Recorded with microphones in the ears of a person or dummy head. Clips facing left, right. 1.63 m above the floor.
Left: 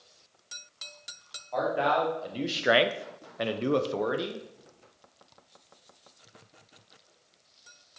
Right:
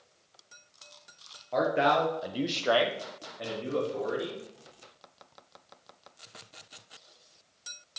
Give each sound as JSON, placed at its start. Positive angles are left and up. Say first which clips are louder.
{"t": 1.5, "sound": "a man speaking", "louder": "right 1 dB", "side_deg": -35, "distance_m": 1.4}